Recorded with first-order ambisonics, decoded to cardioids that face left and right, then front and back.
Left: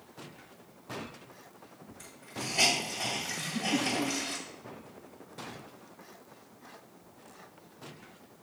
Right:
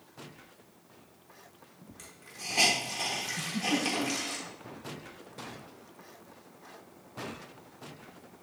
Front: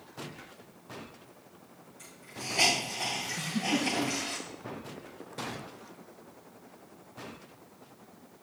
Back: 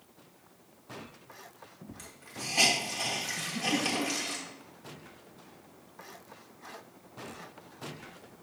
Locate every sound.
2.0 s a hiss: 135° right, 3 m
3.4 s a giggle: 80° right, 2.5 m